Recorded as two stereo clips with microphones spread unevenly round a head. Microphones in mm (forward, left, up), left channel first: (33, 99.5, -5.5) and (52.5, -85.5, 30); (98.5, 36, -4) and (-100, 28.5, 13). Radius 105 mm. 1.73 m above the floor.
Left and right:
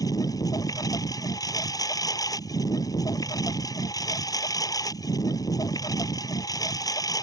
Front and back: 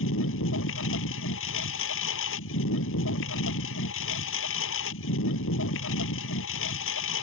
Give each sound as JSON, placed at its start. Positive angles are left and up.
{"t": 0.0, "sound": "a lawn mower", "azimuth_deg": 20}